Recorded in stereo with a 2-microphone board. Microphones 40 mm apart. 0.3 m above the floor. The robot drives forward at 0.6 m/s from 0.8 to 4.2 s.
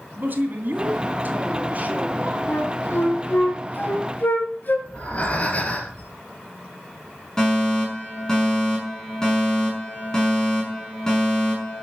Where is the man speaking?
45° right (ahead or behind), 2.5 m; by 2.4 s 35° right (ahead or behind), 3 m.